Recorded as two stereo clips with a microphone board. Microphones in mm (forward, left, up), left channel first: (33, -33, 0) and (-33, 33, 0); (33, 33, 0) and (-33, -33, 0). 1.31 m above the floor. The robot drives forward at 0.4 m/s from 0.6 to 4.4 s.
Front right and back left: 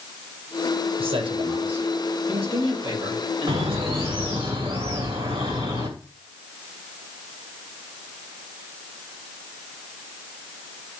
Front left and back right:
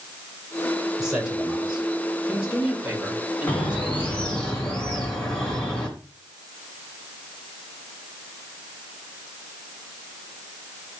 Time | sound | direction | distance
1.0 | a man speaking | 140° left | 5 m
3.5 | a bird | 120° left | 3 m